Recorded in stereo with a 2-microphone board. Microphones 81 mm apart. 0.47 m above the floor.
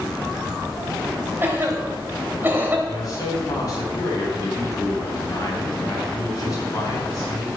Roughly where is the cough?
Right.